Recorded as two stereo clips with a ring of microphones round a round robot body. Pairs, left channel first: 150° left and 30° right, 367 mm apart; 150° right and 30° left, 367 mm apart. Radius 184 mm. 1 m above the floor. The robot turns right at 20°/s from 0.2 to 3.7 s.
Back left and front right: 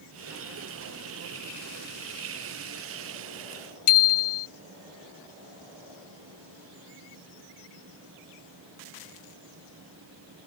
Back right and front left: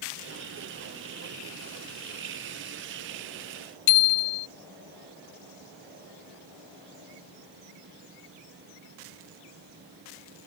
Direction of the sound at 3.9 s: 165° right.